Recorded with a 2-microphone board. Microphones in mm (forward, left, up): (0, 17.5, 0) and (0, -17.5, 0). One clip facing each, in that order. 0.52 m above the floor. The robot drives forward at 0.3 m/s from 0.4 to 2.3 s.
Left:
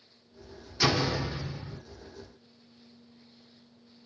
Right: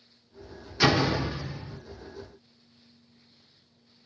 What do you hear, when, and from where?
0.8 s a door slam: 20° right (ahead or behind), 0.5 m; by 1.8 s 15° right (ahead or behind), 0.8 m